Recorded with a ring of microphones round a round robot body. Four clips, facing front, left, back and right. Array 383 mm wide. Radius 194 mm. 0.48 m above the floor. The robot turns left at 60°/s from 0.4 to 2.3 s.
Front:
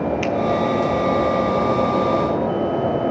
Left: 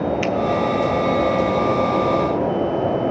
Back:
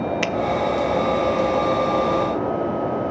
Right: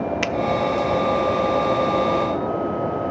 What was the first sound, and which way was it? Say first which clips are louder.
A finger snap: left 3 dB, front 3 dB; 135° right.